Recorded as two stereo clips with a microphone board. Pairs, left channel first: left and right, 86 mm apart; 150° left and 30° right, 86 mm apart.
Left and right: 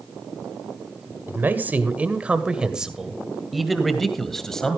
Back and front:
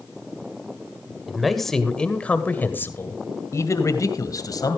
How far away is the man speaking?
About 1.6 m.